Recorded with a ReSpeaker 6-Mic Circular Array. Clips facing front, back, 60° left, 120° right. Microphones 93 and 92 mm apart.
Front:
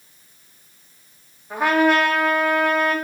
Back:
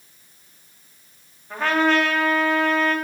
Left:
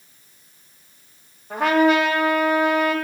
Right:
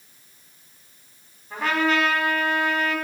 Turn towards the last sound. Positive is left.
turn(degrees=75)